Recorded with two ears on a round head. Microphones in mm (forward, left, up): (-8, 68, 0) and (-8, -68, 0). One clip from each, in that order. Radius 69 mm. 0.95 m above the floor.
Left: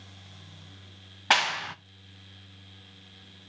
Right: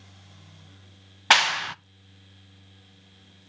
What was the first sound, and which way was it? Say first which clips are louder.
A clap: right 5 dB; 25° right (ahead or behind).